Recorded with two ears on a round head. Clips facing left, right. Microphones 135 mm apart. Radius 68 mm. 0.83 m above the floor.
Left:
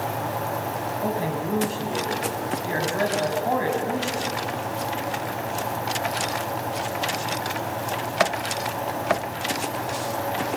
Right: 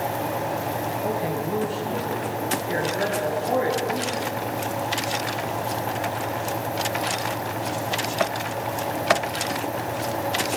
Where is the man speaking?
70° left (ahead or behind), 5.5 m.